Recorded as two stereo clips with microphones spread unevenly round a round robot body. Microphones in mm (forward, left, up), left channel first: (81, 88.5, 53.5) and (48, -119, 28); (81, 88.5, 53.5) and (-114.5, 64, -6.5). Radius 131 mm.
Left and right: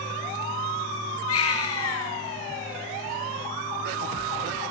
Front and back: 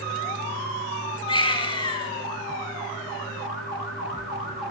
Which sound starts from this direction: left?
A baby crying, at 1.3 s.